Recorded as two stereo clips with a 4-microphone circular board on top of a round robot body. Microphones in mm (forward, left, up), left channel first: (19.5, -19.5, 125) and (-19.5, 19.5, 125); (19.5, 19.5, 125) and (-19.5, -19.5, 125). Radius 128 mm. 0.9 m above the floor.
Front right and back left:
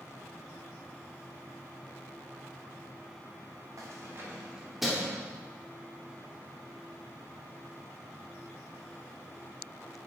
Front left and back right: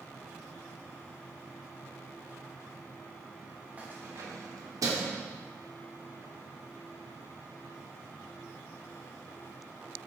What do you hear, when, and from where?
3.8 s keys jangling: 160° left, 1.6 m; by 5.2 s 125° right, 2.0 m